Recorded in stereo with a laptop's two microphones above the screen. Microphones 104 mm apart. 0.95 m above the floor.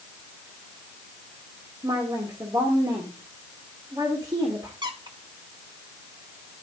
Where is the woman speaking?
45° right (ahead or behind), 2 m.